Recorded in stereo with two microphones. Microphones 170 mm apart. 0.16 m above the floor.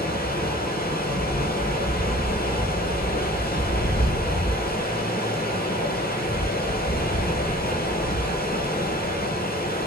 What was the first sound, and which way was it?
Running water, 65° left (ahead or behind).